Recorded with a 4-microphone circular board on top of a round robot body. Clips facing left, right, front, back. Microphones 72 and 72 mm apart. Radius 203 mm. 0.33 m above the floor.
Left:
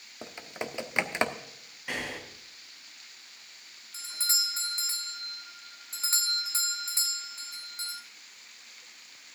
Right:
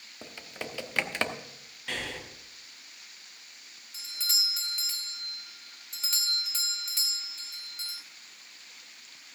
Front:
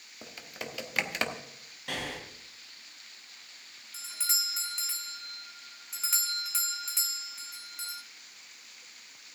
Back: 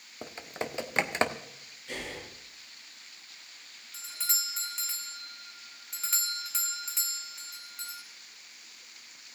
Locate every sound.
0.2 s typing on a keyboard: 145° left, 1.5 m
1.9 s breathing: 10° left, 3 m
3.9 s a doorbell: 85° left, 1.8 m